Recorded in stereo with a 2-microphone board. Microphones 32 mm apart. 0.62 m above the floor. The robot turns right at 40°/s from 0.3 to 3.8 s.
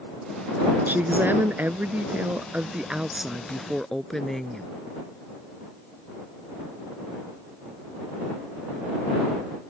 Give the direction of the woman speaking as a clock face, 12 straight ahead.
4 o'clock.